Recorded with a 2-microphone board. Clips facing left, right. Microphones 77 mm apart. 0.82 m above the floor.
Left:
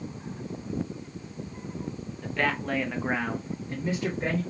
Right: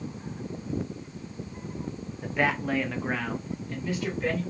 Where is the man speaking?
15° right (ahead or behind), 0.8 m; by 4.4 s 35° left (ahead or behind), 1.1 m.